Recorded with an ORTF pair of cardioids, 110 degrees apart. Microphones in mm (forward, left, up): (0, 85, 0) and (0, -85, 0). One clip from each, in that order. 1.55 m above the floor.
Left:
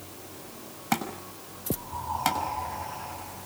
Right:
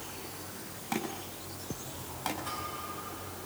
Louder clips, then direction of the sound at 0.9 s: Left 6 dB; 55° left.